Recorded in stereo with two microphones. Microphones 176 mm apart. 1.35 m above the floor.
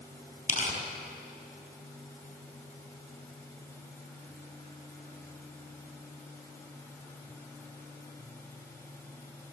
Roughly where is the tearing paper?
Left.